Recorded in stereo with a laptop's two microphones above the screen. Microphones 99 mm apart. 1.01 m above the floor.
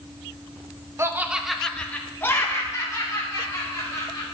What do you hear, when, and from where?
1.0 s laughter: 25° right (ahead or behind), 0.6 m; by 4.2 s 35° left (ahead or behind), 2.5 m